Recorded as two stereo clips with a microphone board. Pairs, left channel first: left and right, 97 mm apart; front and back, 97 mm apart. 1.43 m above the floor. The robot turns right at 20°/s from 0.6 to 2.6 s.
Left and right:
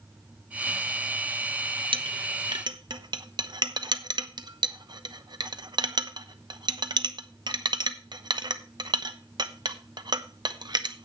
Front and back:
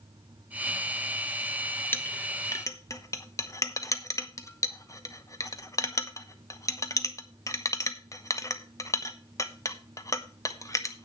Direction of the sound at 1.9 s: 65° right.